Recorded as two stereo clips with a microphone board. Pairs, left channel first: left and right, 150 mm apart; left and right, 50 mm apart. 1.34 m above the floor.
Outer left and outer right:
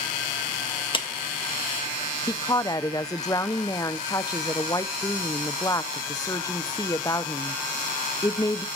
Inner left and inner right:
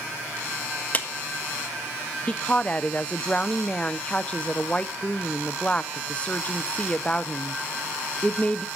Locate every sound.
0.9 s a clap: 35° left (ahead or behind), 1.5 m
2.3 s a woman speaking: 25° left (ahead or behind), 0.6 m